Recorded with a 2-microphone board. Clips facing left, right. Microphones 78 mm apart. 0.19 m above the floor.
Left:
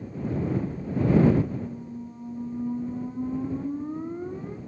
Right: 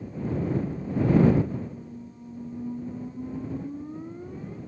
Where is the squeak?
40° left (ahead or behind).